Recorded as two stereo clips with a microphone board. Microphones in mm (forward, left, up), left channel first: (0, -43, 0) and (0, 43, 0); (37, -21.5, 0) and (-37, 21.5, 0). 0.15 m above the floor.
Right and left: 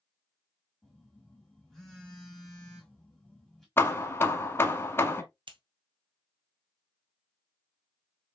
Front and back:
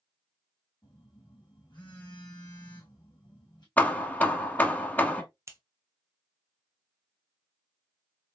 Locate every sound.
0.8 s a phone buzzing: straight ahead, 2.5 m
3.8 s hammering: 80° right, 0.9 m
5.5 s scissors: 95° left, 1.0 m